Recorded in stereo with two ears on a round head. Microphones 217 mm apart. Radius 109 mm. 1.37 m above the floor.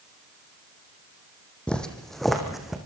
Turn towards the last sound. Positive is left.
turn(degrees=0)  # may be behind; listen again after turning